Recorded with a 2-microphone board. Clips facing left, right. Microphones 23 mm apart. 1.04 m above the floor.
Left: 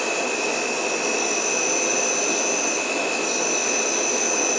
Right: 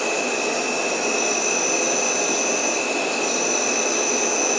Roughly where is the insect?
Right.